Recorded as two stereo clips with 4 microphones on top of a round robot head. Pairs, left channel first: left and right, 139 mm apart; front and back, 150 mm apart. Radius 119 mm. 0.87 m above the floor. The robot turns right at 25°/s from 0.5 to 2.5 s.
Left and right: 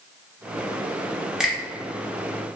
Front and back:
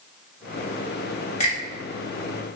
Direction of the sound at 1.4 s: 5° right.